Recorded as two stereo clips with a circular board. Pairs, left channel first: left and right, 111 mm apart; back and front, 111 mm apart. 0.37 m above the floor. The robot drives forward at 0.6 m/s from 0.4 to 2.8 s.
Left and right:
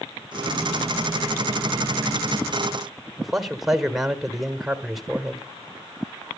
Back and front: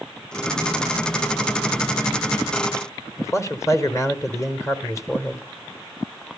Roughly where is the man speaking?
Behind.